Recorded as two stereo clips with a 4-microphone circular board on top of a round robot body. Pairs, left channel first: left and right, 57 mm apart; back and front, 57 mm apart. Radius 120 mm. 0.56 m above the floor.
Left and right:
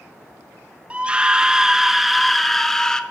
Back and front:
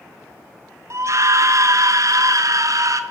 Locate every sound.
0.9 s a scream: 25° right, 2 m; by 3.0 s 10° left, 2.5 m